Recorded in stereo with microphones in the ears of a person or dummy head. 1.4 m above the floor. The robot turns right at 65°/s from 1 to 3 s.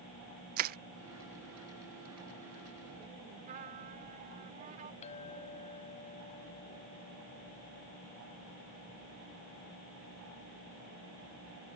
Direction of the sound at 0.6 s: 45° right (ahead or behind).